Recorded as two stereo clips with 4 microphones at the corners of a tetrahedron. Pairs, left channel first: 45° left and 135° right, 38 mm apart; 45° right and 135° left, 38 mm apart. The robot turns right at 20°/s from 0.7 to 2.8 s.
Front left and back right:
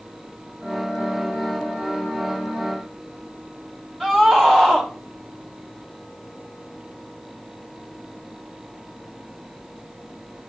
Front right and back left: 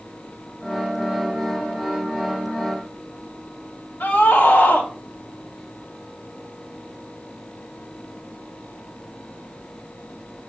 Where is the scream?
35° right, 2.5 m.